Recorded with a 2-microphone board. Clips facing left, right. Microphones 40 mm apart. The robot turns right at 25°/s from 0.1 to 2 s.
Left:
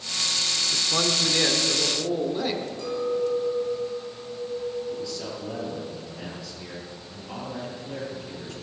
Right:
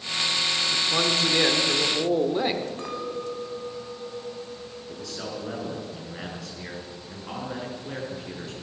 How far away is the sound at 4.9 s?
About 7.5 m.